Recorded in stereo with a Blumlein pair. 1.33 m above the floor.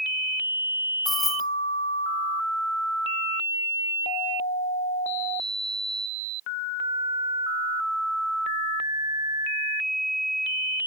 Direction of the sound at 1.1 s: 15° left.